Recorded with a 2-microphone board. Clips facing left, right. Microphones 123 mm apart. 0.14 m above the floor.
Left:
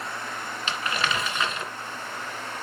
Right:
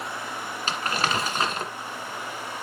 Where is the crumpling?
40° right (ahead or behind), 1.8 m.